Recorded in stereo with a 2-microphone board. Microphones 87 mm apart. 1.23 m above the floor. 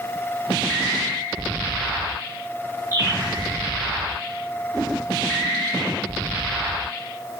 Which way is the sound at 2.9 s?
25° right (ahead or behind).